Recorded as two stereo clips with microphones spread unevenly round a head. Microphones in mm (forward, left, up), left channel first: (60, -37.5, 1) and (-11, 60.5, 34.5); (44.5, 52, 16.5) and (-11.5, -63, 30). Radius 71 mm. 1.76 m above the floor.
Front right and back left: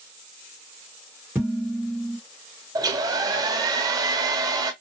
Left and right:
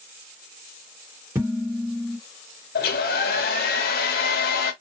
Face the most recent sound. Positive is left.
turn(degrees=65)